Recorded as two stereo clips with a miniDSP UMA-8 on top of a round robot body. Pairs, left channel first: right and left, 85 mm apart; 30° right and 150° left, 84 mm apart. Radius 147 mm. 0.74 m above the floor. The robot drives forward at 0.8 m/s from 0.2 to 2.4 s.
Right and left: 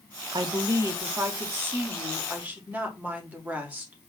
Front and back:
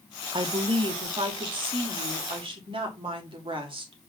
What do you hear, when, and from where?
0.3 s a woman speaking: 130° left, 1.0 m; by 4.1 s 160° left, 2.5 m